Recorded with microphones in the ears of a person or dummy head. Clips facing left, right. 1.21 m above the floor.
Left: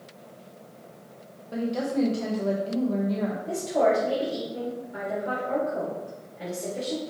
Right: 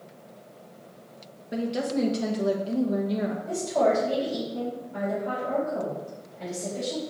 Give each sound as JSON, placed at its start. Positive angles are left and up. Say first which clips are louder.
{"t": 1.5, "sound": "a woman speaking", "louder": "even", "side_deg": -20, "distance_m": 1.2}
{"t": 3.5, "sound": "a woman speaking", "louder": "left 1 dB", "side_deg": 15, "distance_m": 3.5}